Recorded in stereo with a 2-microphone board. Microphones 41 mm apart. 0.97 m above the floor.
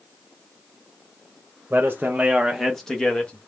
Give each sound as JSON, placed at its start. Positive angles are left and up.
{"t": 1.7, "sound": "a man speaking", "side_deg": -60, "distance_m": 0.8}